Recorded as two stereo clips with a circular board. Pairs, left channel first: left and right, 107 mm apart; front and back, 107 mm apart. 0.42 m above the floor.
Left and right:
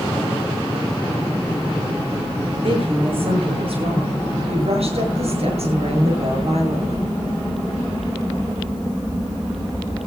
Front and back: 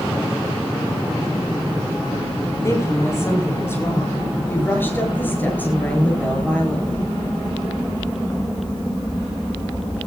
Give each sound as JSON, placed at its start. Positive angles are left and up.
{"t": 2.6, "sound": "a woman speaking", "azimuth_deg": -60, "distance_m": 7.5}